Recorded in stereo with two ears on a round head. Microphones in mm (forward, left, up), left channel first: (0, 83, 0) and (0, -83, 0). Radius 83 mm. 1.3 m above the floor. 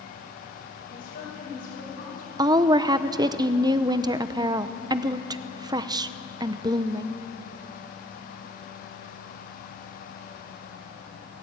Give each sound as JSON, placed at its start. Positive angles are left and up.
{"t": 0.9, "sound": "a woman speaking", "side_deg": 65, "distance_m": 7.0}
{"t": 2.4, "sound": "a woman speaking", "side_deg": -20, "distance_m": 0.7}